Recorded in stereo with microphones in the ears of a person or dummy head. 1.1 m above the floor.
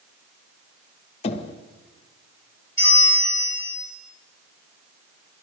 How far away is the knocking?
About 0.9 m.